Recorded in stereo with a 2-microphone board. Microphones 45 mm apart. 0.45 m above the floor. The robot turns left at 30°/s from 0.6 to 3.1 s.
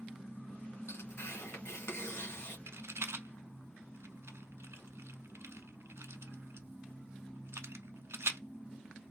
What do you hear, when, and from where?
0.9 s tearing paper: 105° left, 1.8 m; by 2.6 s 55° left, 1.8 m
2.7 s a rattle: 65° right (ahead or behind), 0.6 m